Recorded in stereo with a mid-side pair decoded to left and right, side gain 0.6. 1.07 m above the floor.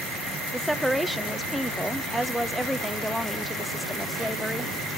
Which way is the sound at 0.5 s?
Straight ahead.